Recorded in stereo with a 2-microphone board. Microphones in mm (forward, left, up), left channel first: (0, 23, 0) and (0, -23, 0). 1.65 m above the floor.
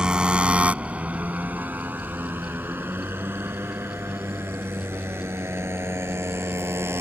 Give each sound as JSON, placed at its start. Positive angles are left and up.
{"t": 0.0, "sound": "a motorcycle", "side_deg": -20}